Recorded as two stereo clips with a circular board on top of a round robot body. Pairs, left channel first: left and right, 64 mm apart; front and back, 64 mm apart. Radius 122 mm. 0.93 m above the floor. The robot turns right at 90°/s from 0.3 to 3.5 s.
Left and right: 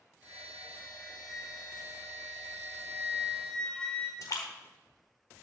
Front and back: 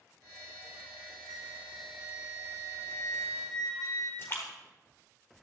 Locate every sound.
1.3 s a flute: 175° left, 1.8 m; by 4.1 s 15° left, 1.8 m
4.2 s a splash: 55° left, 1.2 m